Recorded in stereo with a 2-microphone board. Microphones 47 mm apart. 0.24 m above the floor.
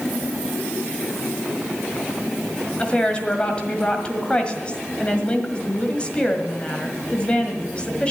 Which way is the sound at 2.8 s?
25° left (ahead or behind).